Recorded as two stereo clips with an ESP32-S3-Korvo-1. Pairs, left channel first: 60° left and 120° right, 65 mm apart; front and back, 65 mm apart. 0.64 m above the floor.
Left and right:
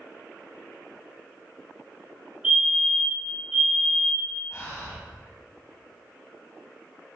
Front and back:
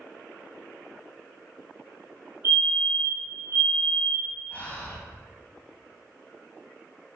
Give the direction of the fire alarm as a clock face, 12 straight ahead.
6 o'clock.